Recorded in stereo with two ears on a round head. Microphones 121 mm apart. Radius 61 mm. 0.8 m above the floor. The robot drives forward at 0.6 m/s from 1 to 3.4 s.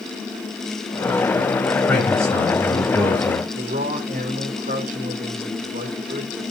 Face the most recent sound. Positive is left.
turn(degrees=-65)  # may be behind; listen again after turning